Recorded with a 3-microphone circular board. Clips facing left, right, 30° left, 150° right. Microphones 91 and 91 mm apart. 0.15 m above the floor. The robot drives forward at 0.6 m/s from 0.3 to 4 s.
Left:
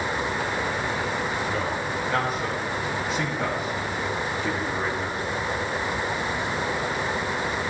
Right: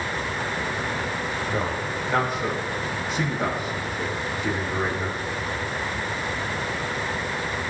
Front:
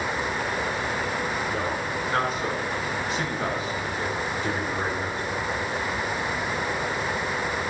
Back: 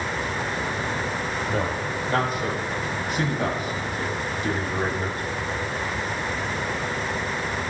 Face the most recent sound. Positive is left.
turn(degrees=-175)